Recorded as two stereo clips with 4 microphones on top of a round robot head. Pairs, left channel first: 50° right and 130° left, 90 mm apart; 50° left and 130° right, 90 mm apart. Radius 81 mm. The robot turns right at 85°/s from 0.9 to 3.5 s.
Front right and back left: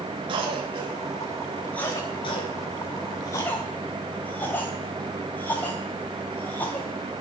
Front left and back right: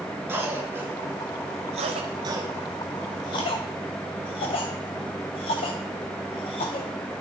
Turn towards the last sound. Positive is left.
turn(degrees=20)